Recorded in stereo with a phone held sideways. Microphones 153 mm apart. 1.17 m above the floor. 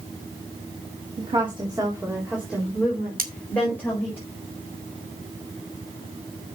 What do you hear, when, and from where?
1.2 s a woman speaking: 45° right (ahead or behind), 2 m; by 4.2 s 15° left (ahead or behind), 5 m
3.2 s cutlery clinking: 70° right (ahead or behind), 1.8 m